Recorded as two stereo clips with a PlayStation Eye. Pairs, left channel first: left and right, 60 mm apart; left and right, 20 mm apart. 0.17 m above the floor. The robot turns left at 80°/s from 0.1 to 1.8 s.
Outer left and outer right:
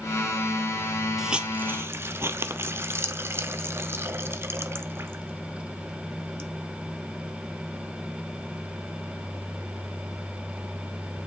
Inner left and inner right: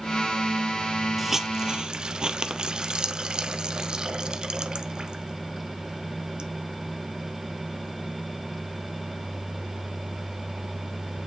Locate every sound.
1.2 s a hiss: 5° right (ahead or behind), 0.8 m; by 6.5 s 45° right (ahead or behind), 0.8 m